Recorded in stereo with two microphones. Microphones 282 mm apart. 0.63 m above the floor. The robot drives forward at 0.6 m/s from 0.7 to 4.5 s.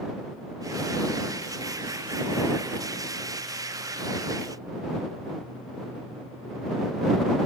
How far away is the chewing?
I don't hear chewing.